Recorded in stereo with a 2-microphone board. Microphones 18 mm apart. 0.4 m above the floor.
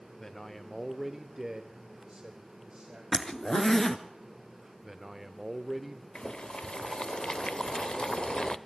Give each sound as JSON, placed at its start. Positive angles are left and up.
{"t": 0.2, "sound": "a man speaking", "side_deg": 35, "distance_m": 0.9}
{"t": 3.1, "sound": "a zipper", "side_deg": 35, "distance_m": 0.9}
{"t": 4.8, "sound": "a man speaking", "side_deg": -15, "distance_m": 0.8}
{"t": 6.2, "sound": "boiling", "side_deg": 60, "distance_m": 0.5}